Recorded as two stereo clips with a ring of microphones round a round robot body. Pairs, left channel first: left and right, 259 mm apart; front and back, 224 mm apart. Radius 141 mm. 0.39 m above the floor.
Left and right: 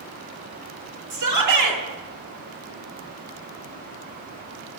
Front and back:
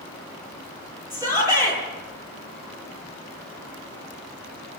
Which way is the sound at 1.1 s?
100° right.